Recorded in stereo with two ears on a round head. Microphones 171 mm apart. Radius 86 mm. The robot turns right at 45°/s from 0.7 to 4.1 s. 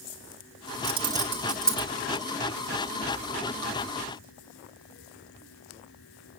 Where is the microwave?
I don't hear a microwave.